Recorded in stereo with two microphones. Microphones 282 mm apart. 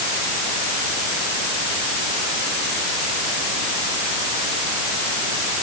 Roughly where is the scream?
I don't hear a scream.